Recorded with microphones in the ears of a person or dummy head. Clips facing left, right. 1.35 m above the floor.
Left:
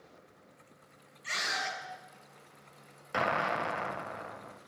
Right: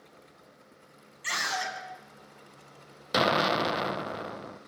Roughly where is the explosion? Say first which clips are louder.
Right 6 dB; right.